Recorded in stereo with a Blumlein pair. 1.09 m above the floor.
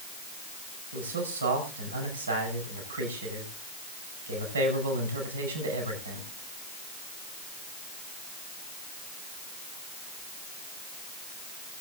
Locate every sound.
0.9 s a man speaking: 70° right, 5.5 m